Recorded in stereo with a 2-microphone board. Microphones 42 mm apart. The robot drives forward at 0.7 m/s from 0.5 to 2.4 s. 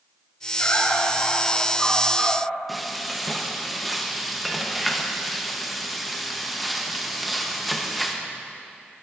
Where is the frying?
Centre (ahead or behind), 0.9 m.